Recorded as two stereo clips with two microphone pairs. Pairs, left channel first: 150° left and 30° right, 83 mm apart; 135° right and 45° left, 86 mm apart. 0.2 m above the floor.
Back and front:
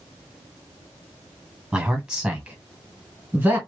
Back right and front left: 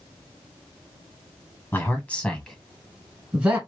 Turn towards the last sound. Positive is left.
turn(degrees=0)